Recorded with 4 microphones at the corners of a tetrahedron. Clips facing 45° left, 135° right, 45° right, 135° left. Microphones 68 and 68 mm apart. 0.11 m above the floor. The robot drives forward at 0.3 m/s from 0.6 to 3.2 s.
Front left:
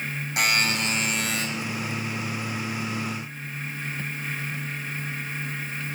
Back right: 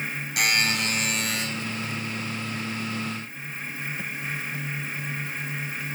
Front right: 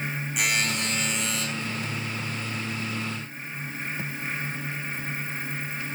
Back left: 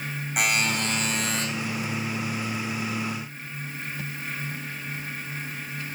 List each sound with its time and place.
0.4 s a buzzer: 110° left, 7.5 m; by 1.4 s 115° left, 7.5 m